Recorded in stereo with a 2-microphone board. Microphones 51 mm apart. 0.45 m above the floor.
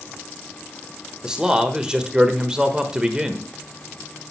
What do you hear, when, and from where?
1.2 s a man speaking: 10° right (ahead or behind), 1.1 m